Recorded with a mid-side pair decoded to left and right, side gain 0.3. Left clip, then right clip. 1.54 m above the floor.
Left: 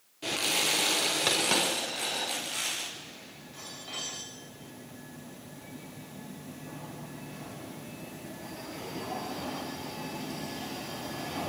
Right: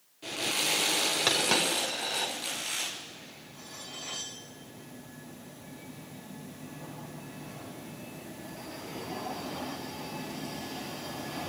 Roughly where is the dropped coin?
Ahead.